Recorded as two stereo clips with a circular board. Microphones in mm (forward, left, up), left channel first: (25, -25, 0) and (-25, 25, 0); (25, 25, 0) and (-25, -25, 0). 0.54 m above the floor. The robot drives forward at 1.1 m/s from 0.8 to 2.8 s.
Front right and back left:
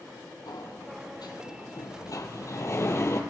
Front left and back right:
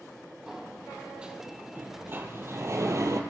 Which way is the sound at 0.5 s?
55° right.